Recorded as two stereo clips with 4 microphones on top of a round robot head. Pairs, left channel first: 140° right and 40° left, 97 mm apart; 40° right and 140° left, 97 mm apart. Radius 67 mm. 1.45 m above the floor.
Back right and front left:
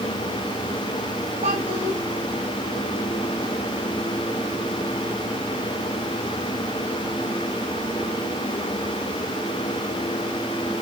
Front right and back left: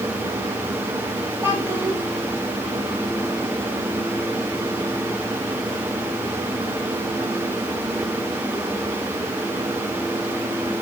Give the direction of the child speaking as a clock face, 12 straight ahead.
10 o'clock.